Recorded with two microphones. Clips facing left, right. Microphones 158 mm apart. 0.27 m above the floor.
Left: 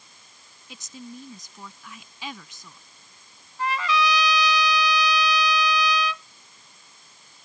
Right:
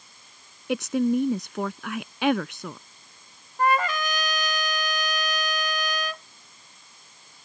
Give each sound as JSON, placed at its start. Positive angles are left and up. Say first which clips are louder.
{"t": 0.7, "sound": "a woman speaking", "louder": "right 19 dB", "side_deg": -70}
{"t": 3.6, "sound": "a trumpet", "louder": "right 1 dB", "side_deg": -50}